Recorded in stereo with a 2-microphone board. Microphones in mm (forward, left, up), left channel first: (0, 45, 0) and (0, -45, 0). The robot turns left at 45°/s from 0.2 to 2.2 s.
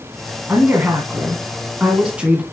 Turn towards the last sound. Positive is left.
turn(degrees=-15)  # may be behind; listen again after turning